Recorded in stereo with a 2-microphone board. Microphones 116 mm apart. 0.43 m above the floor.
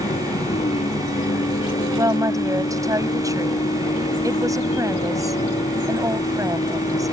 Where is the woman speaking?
30° right (ahead or behind).